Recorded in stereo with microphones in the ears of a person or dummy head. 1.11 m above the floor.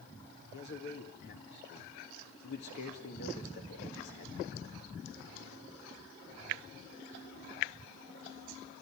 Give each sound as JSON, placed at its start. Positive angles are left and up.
{"t": 0.5, "sound": "a man speaking", "side_deg": 55, "distance_m": 2.0}